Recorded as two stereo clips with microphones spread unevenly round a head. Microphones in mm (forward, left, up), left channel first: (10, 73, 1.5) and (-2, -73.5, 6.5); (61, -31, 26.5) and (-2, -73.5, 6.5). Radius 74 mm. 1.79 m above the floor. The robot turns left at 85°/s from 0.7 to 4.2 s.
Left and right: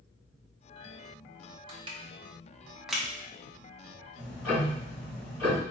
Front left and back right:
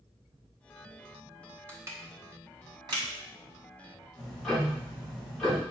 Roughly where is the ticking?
Ahead right.